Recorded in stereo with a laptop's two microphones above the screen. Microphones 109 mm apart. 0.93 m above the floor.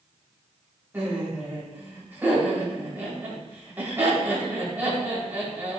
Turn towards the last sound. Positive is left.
turn(degrees=-15)  # may be behind; listen again after turning